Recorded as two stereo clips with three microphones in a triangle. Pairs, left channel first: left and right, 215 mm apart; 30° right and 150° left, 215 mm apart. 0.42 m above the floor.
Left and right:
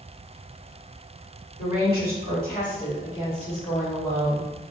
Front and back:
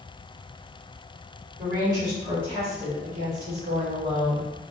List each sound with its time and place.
1.6 s a woman speaking: 75° left, 1.8 m; by 4.5 s 165° left, 1.9 m